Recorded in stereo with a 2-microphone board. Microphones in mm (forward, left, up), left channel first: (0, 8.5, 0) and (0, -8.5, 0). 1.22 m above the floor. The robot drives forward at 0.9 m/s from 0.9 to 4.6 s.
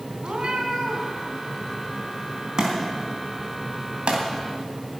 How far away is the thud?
About 3.5 m.